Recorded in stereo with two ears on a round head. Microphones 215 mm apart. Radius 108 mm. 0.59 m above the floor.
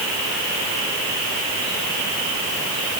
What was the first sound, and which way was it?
Only background noise.